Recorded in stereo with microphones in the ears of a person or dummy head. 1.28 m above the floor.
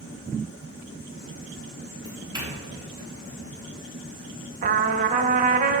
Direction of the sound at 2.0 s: 20° right (ahead or behind).